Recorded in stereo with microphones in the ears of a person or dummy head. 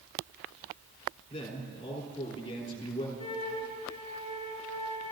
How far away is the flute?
About 3 m.